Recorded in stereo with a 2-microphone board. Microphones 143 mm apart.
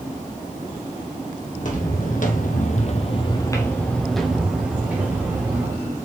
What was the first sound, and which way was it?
Footsteps, 65° left (ahead or behind).